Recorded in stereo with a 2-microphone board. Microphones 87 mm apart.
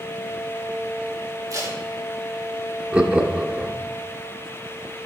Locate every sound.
1.5 s tape being pulled: 40° right (ahead or behind), 2.0 m
2.9 s laughter: 10° right (ahead or behind), 0.8 m